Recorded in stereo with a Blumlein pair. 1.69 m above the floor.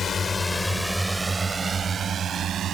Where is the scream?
I don't hear a scream.